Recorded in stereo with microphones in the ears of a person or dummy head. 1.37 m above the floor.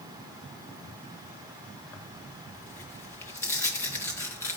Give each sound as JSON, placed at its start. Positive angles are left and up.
{"t": 1.9, "sound": "tearing paper", "side_deg": 10, "distance_m": 1.7}